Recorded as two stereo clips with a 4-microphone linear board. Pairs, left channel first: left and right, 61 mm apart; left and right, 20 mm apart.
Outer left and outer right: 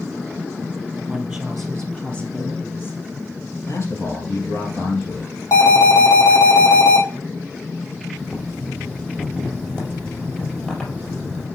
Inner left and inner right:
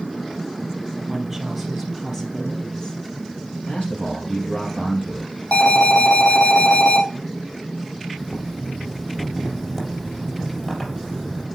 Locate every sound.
1.0 s a woman speaking: 15° right (ahead or behind), 3 m; by 3.0 s 40° left (ahead or behind), 3 m
3.6 s a man speaking: 55° left (ahead or behind), 3 m
5.5 s an alarm: 65° left (ahead or behind), 3 m
8.2 s boiling: 15° left (ahead or behind), 3.5 m